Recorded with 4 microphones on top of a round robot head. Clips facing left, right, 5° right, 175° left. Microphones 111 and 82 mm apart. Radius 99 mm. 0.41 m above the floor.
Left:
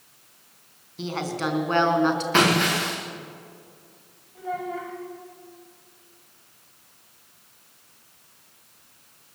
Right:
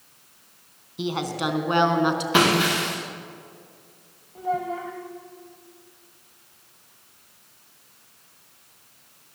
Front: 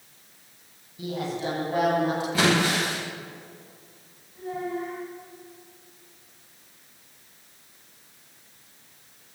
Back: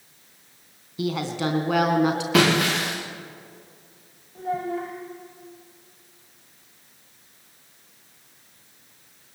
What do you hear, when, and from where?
1.0 s a woman speaking: 165° right, 3.5 m
2.3 s breaking glass: 165° right, 7.5 m
4.3 s a child speaking: 145° right, 2.5 m